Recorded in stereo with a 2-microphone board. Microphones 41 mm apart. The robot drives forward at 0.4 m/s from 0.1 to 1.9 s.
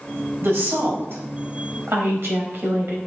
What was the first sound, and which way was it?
A woman speaking, 80° right.